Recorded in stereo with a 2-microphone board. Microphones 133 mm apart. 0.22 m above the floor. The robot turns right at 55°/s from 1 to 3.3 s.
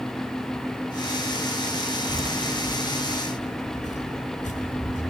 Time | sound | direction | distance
2.1 | footsteps | 35° right (ahead or behind) | 0.6 m